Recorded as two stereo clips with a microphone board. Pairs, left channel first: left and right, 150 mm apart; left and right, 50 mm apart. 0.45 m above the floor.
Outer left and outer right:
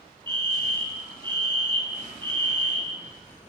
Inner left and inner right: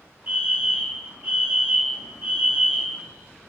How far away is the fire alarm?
About 4 m.